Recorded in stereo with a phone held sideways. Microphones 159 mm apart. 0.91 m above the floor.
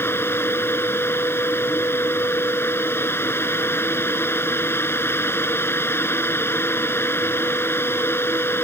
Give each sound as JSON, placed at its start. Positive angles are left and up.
{"t": 0.0, "sound": "a fan", "side_deg": 15}